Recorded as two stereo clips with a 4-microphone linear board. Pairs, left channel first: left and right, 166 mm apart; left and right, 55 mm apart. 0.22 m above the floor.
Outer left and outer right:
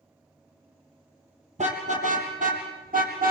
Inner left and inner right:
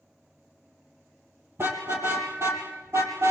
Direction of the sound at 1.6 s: 45° right (ahead or behind).